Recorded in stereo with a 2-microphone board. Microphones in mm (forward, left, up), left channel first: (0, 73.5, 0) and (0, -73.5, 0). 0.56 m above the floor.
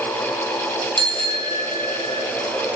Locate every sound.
1.0 s a bicycle bell: 30° right (ahead or behind), 3.5 m; by 2.2 s 50° right (ahead or behind), 2.5 m